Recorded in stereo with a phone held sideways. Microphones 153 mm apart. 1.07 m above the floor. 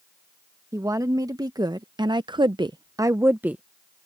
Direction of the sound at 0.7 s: 20° right (ahead or behind).